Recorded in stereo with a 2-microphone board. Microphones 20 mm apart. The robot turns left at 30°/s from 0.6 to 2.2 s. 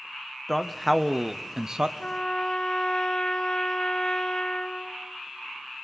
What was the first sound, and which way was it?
A man speaking, 5° left.